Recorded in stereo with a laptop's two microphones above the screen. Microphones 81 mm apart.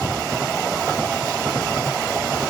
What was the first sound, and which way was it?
Only background noise.